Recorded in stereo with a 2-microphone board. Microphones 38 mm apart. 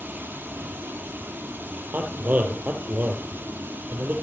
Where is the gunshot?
I don't hear a gunshot.